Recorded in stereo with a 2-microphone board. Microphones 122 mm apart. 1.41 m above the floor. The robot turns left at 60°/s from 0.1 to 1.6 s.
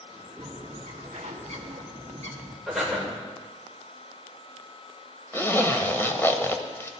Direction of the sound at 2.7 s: Centre (ahead or behind).